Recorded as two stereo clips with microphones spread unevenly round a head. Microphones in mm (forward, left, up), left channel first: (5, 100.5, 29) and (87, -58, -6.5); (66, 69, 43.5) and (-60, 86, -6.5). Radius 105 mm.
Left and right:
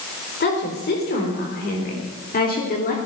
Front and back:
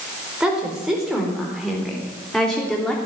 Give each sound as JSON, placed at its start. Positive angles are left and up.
{"t": 0.4, "sound": "a woman speaking", "azimuth_deg": 90, "distance_m": 4.5}